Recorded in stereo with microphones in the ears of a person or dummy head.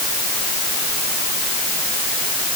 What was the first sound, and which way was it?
Only background noise.